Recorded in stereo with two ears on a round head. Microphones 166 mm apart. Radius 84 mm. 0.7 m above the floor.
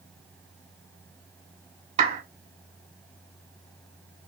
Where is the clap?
40° right (ahead or behind), 2 m.